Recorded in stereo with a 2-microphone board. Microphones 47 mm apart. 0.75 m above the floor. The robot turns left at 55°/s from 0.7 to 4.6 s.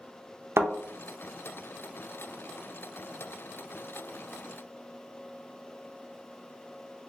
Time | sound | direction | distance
0.6 | a thud | 65° right (ahead or behind) | 0.6 m